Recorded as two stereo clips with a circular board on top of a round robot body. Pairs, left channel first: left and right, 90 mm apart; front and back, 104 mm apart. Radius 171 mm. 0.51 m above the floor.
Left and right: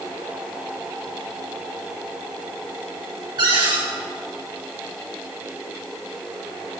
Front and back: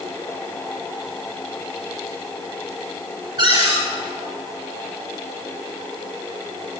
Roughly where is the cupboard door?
Behind right.